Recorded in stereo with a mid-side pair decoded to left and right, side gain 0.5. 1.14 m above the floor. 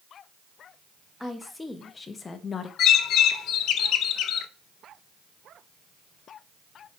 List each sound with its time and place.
1.2 s a woman speaking: 10° left, 1.7 m; by 2.7 s 45° left, 1.3 m
2.8 s a bird: 70° left, 0.7 m